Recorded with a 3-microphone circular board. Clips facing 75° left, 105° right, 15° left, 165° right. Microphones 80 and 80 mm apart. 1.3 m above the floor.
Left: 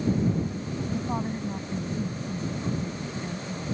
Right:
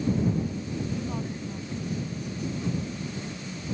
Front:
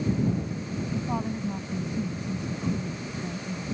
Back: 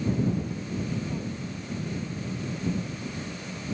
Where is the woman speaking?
20° left; by 3.6 s 15° left.